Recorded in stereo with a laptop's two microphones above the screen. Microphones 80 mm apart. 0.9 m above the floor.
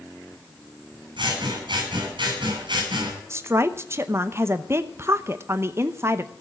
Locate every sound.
1.2 s scissors: 80° right, 6.5 m
3.3 s a woman speaking: 35° right (ahead or behind), 0.8 m